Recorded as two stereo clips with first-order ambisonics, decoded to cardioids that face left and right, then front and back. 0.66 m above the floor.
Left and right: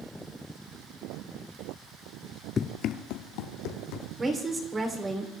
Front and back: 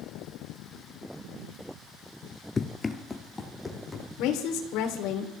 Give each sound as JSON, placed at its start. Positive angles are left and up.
{"t": 2.6, "sound": "running footsteps", "azimuth_deg": 55, "distance_m": 0.6}
{"t": 4.2, "sound": "a woman speaking", "azimuth_deg": -15, "distance_m": 2.5}